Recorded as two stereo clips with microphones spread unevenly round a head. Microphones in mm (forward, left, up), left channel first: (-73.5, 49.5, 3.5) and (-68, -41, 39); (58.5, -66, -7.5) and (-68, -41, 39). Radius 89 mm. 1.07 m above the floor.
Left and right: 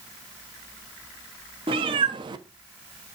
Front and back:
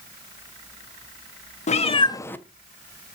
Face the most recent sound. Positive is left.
turn(degrees=-135)